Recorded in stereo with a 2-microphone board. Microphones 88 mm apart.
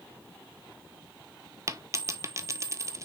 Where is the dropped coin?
35° right (ahead or behind), 0.7 m.